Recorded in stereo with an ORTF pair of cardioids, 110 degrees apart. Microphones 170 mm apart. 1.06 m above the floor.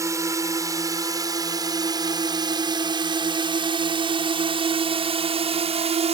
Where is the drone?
20° right; by 6.1 s 40° right.